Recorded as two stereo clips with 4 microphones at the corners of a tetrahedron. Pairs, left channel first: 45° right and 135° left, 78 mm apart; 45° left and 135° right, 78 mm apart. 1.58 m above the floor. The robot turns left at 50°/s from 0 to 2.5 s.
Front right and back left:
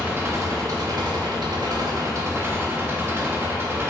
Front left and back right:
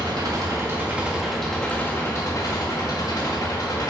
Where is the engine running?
160° right, 1.8 m; by 3.9 s 75° left, 1.8 m.